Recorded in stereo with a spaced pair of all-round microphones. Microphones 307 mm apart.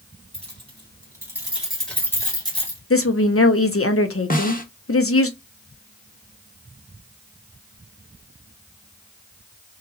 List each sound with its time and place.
0.3 s keys jangling: 20° right (ahead or behind), 2.5 m; by 2.8 s 25° left (ahead or behind), 1.7 m
2.9 s a woman speaking: 50° left (ahead or behind), 0.7 m
4.3 s a snare drum: 30° left (ahead or behind), 0.9 m